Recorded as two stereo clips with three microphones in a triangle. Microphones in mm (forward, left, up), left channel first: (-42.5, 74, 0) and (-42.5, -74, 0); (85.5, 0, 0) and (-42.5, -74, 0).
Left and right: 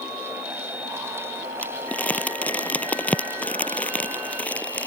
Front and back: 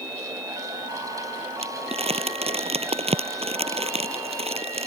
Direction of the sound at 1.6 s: 170° left.